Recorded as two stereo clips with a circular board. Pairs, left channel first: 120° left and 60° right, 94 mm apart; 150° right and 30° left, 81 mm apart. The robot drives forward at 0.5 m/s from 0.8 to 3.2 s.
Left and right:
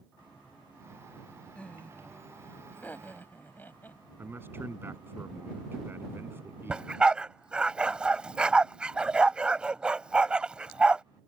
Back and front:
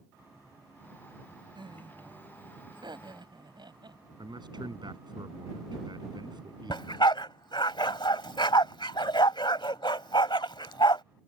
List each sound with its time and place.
1.6 s laughter: 45° left; by 4.0 s 50° left
4.2 s a man speaking: 5° left
6.7 s a dog barking: 140° right